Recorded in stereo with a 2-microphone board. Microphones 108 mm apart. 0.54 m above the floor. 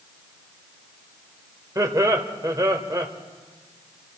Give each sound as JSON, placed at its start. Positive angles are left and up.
{"t": 1.8, "sound": "laughter", "side_deg": -30, "distance_m": 1.6}